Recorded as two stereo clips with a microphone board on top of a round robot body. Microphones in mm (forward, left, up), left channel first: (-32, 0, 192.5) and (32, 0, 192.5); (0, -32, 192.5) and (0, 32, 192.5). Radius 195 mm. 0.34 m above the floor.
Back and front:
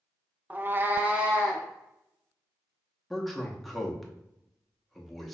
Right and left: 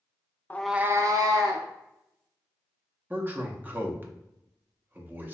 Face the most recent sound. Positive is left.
turn(degrees=95)